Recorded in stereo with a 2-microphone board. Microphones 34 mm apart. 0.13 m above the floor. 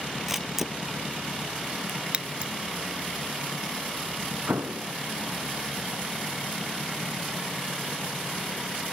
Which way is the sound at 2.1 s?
35° right (ahead or behind).